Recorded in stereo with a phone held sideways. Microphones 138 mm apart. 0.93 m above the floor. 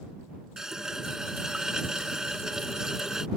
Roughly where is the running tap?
Centre.